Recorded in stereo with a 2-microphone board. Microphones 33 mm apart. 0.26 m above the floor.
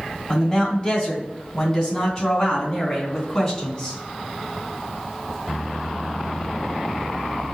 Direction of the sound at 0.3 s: 25° left (ahead or behind).